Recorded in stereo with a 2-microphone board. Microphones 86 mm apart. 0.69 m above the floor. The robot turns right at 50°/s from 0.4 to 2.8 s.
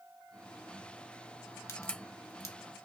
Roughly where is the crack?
Left.